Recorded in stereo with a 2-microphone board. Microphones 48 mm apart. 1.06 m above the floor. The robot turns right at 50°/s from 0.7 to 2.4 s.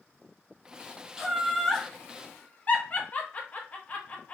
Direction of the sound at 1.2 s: 15° right (ahead or behind).